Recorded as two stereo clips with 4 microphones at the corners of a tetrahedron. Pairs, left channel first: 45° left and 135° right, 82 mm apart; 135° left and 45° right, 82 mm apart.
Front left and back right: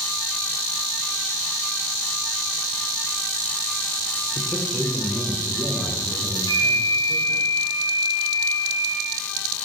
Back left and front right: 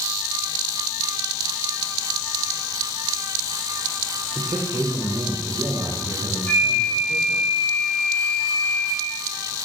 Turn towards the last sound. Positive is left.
turn(degrees=70)